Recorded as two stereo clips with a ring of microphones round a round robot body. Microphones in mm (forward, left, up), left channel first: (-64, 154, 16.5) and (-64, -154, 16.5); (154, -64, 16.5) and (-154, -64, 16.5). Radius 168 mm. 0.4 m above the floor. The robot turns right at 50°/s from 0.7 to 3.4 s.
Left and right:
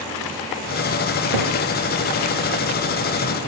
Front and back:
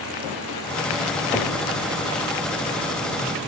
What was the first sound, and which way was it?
A cupboard door, 95° right.